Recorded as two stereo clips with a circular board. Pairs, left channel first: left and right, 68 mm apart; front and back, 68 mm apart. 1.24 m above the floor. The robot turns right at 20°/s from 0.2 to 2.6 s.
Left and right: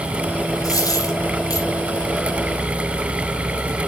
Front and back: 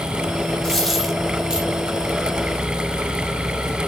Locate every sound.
0.6 s a dropped coin: 85° left, 4 m; by 1.7 s 105° left, 4 m